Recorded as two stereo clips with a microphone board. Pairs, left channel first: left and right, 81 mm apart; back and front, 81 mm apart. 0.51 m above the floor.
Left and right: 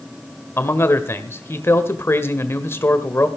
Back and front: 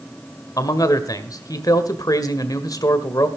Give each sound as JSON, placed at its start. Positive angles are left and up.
{"t": 0.6, "sound": "a man speaking", "azimuth_deg": 145, "distance_m": 1.6}